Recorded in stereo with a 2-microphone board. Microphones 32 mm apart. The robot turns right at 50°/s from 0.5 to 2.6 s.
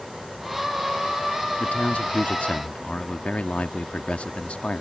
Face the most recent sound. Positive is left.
turn(degrees=125)